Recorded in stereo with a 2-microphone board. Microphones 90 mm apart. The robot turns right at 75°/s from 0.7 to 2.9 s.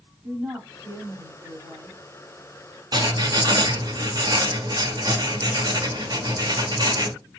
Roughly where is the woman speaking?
Behind.